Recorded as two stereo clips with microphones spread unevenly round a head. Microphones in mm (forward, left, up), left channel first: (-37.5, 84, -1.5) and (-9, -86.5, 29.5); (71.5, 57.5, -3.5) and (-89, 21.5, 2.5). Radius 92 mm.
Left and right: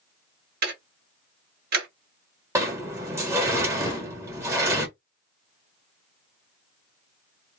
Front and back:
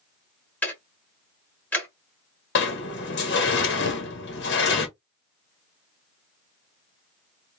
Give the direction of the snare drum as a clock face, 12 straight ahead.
11 o'clock.